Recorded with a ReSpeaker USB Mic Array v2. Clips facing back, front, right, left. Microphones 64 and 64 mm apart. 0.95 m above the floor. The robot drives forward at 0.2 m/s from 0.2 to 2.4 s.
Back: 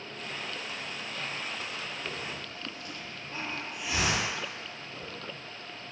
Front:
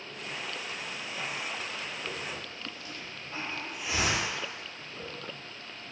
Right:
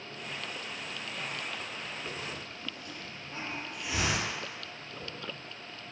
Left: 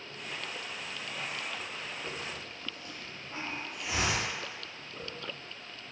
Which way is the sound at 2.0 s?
60° left.